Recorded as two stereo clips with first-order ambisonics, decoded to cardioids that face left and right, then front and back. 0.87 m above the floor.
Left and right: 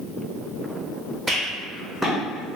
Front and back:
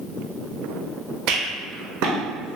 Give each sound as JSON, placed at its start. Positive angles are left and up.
{"t": 1.3, "sound": "a rattle", "azimuth_deg": -175, "distance_m": 0.8}